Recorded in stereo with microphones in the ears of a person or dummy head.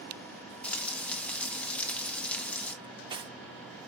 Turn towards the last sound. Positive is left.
turn(degrees=-30)  # may be behind; listen again after turning